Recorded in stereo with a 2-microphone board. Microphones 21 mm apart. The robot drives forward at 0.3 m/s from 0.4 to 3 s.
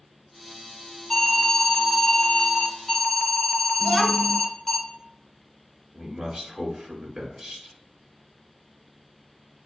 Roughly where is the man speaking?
Right.